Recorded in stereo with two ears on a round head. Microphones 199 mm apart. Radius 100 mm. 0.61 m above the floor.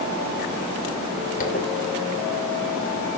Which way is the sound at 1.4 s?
40° left (ahead or behind).